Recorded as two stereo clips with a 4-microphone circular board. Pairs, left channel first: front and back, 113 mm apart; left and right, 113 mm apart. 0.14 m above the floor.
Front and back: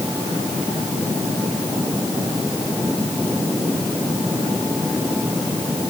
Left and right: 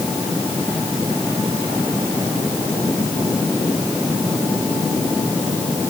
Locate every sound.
Only background noise.